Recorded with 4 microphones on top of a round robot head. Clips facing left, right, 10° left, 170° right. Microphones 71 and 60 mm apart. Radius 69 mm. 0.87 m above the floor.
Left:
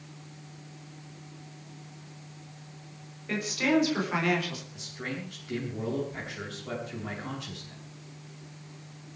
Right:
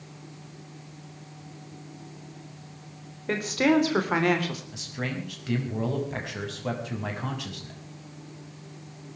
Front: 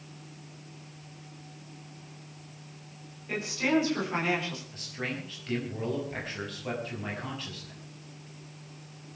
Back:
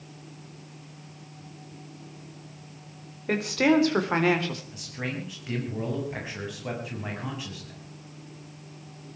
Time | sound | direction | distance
3.3 | a woman speaking | 135° right | 4.5 m
4.7 | a man speaking | 90° right | 6.5 m